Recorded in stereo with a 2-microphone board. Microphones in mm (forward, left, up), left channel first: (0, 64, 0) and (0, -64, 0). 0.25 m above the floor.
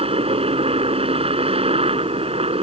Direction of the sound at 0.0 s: 50° right (ahead or behind).